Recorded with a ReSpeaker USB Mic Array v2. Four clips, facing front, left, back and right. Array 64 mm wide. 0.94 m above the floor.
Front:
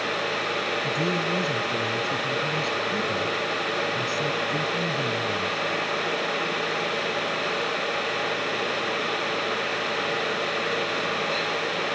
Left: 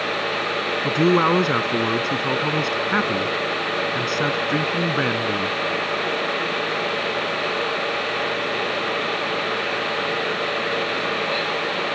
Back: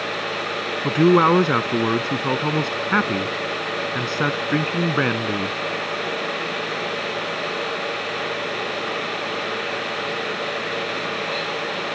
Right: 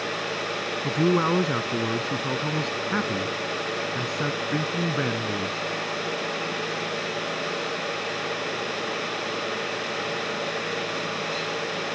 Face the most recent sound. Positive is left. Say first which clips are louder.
# left 4 dB, back 16 dB
turn(degrees=155)